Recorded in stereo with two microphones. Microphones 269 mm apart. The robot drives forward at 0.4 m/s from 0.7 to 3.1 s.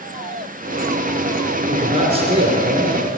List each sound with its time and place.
1.7 s a man speaking: 25° right (ahead or behind), 1.9 m; by 3.1 s 20° right (ahead or behind), 2.5 m